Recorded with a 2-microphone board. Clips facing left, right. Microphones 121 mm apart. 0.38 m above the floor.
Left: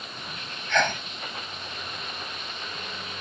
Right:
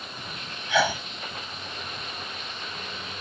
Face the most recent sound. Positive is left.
turn(degrees=-5)  # may be behind; listen again after turning